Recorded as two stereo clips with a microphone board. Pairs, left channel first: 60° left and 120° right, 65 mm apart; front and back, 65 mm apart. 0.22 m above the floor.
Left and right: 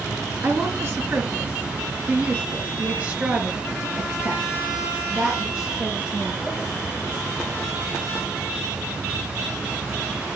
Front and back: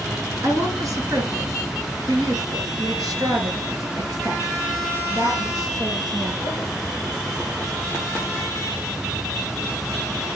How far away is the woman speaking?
About 3 m.